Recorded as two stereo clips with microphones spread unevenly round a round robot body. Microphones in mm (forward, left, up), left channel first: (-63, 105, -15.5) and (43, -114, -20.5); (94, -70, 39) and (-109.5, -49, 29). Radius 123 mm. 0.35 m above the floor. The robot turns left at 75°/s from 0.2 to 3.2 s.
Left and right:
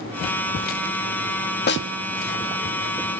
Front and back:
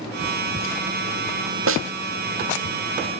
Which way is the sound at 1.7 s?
165° left.